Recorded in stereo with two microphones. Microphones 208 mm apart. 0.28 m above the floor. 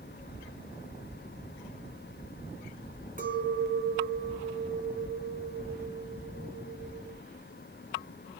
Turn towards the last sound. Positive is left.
turn(degrees=-45)  # may be behind; listen again after turning